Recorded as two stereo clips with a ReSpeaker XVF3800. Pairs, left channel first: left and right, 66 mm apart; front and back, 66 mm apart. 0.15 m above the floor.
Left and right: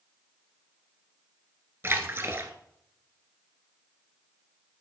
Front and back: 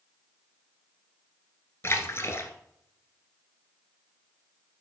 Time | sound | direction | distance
1.8 | a splash | 45° right | 1.3 m